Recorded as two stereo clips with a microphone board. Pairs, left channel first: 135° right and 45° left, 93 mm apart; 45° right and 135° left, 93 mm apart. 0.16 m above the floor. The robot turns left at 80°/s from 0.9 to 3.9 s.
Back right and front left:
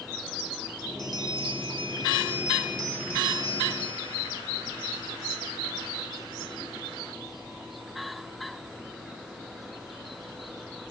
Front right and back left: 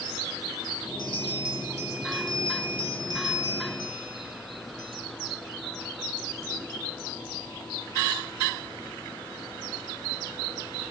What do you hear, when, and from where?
1.0 s a bell: 100° left, 1.1 m; by 5.0 s 135° right, 1.1 m